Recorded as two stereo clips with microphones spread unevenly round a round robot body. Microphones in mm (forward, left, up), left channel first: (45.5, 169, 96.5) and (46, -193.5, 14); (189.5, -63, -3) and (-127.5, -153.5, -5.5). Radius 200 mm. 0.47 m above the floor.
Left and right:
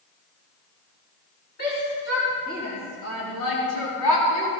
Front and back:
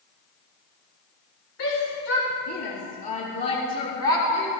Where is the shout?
20° left, 3.5 m; by 4.5 s 75° left, 3.5 m.